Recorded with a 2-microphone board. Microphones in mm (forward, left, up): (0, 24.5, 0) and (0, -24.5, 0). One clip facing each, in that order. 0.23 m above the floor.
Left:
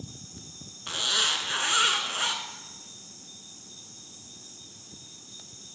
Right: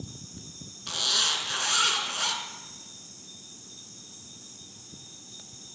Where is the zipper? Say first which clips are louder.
Left 1 dB; 25° left (ahead or behind), 0.7 m.